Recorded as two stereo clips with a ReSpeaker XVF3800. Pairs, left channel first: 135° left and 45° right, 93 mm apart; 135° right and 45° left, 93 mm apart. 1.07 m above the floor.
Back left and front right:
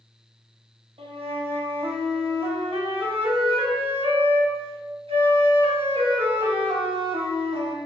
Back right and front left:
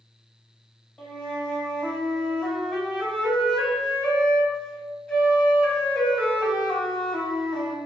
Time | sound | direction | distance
1.0 | a flute | 55° right | 0.9 m